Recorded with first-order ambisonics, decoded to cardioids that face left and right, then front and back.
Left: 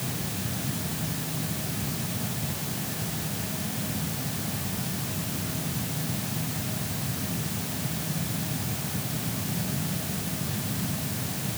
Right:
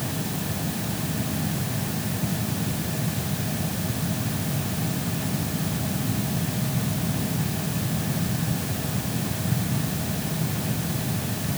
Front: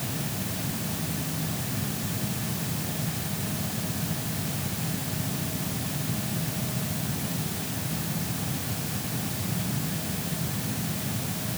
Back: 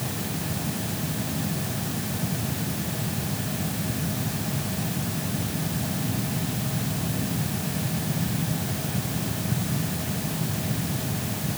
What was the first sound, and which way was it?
Only background noise.